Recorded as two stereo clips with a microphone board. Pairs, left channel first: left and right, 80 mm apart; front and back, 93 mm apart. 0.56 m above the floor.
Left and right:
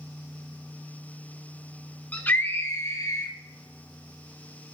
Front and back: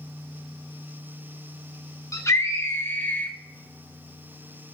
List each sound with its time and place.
2.1 s a scream: 25° left, 1.1 m; by 3.3 s 70° left, 1.3 m